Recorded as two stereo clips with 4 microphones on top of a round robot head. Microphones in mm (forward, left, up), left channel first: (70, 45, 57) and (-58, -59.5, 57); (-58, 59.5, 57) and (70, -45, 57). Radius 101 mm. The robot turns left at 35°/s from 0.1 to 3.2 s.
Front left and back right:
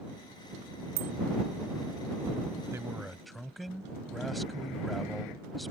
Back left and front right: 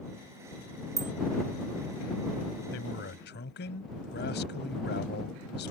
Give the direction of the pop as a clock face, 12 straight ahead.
I don't hear a pop.